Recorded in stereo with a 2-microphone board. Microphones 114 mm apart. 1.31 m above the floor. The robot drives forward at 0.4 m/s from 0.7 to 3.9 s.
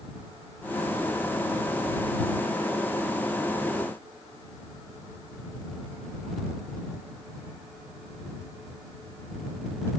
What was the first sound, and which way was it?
Only background noise.